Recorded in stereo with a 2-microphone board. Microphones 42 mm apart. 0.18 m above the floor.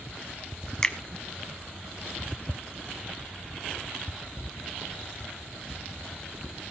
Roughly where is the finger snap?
Centre.